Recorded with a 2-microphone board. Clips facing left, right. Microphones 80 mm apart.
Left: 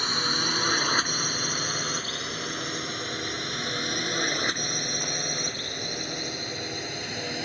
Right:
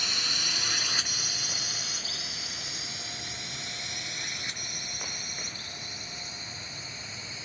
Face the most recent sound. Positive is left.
turn(degrees=70)  # may be behind; listen again after turning